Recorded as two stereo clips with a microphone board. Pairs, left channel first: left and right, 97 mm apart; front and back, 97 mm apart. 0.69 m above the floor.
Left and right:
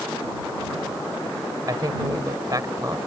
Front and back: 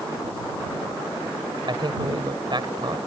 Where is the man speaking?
140° right.